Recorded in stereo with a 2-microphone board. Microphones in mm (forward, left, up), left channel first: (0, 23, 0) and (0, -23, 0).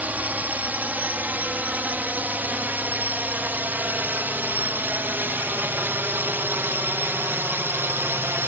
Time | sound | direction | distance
0.0 | a drone | 40° right (ahead or behind) | ?